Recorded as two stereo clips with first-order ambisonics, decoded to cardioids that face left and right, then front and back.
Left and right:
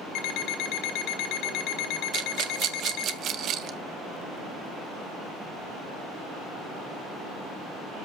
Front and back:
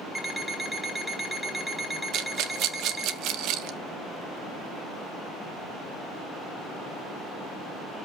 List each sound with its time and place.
0.1 s an alarm clock: 95° left, 1.7 m
2.1 s a rattle: 140° right, 1.1 m